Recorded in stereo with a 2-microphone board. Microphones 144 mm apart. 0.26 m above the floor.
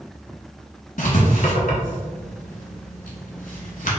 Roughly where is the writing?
Left.